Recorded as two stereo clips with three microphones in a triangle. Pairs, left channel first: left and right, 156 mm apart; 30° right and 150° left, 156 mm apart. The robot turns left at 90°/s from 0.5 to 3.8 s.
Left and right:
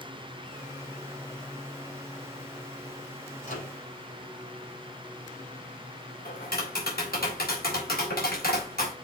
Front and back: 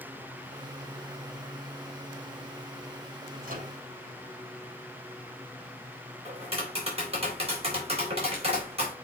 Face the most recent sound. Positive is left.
turn(degrees=100)